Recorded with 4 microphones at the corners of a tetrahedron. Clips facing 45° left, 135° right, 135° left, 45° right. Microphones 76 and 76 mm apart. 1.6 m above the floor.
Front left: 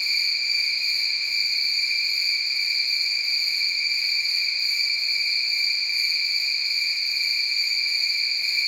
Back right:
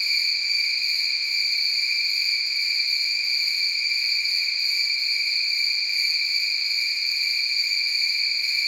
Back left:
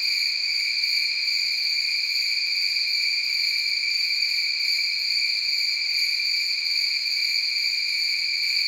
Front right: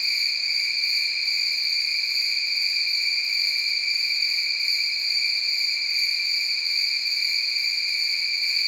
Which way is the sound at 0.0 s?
10° left.